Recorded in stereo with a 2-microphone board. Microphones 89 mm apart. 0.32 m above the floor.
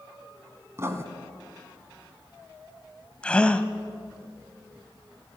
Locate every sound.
0.8 s writing: 30° right (ahead or behind), 2 m
3.2 s a gasp: 10° left (ahead or behind), 1.2 m